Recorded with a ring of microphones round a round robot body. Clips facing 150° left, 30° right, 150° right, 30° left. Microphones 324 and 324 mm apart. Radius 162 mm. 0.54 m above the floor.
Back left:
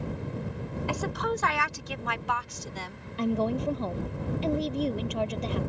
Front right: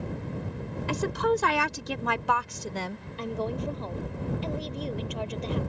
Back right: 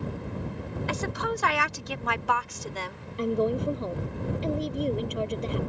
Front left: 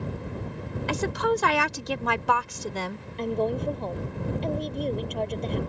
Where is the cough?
No cough in this recording.